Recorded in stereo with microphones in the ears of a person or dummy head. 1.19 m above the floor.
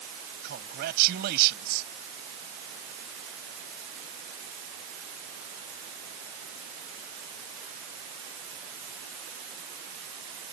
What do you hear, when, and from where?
0.4 s a man speaking: 55° right (ahead or behind)